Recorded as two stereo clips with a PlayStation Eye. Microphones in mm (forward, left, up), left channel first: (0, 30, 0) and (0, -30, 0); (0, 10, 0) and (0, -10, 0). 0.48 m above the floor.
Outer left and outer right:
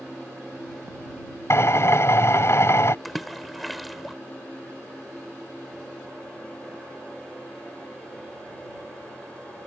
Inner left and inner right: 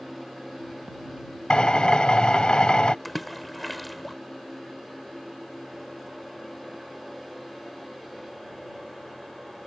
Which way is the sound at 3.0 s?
Centre (ahead or behind).